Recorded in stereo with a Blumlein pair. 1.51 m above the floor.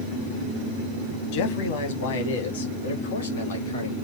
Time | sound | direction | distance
1.3 | a man speaking | 50° left | 1.4 m